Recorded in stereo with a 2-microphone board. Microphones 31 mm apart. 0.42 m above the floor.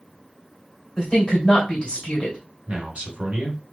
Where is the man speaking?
45° right (ahead or behind), 1.6 m.